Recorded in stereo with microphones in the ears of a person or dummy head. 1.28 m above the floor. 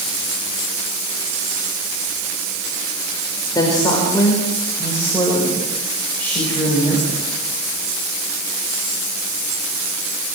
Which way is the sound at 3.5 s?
20° left (ahead or behind).